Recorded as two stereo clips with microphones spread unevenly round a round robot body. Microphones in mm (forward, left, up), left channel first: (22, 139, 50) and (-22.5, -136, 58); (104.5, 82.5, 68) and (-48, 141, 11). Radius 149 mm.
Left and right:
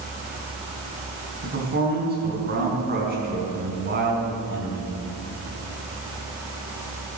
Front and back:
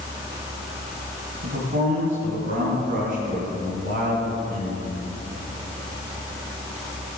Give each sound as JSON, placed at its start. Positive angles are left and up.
{"t": 1.4, "sound": "a man speaking", "azimuth_deg": -155, "distance_m": 4.0}